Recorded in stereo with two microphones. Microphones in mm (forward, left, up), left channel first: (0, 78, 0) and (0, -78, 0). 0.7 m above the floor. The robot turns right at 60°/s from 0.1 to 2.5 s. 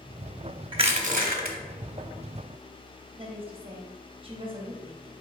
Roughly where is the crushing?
Behind right.